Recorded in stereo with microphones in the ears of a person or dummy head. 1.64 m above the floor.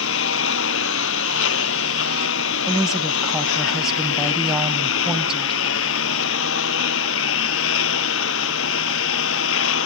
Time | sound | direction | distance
0.0 | a lawn mower | 90° left | ?
2.7 | a woman speaking | 5° right (ahead or behind) | ?